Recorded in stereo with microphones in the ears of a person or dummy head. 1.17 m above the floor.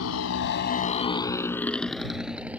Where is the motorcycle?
85° left; by 2.6 s 10° right (ahead or behind).